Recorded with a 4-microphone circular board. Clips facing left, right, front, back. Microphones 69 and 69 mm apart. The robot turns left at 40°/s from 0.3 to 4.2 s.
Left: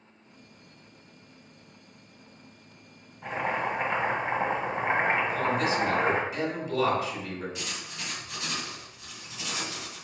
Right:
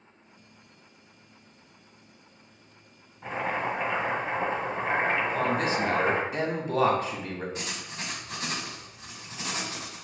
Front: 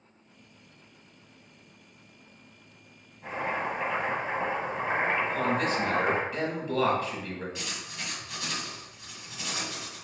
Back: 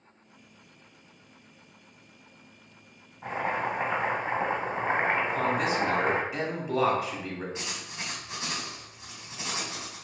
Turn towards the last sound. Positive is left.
turn(degrees=-125)